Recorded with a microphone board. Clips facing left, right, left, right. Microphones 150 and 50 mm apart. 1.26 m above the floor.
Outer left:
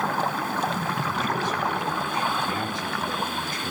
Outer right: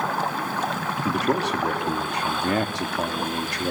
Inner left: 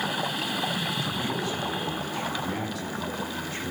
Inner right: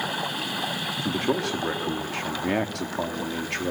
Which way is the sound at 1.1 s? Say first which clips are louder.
Outer right 8 dB, inner right 4 dB; 75° right (ahead or behind).